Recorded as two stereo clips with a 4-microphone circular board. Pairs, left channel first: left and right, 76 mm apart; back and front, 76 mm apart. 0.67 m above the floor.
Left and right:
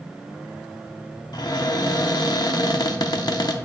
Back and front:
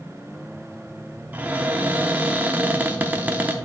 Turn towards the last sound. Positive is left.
turn(degrees=65)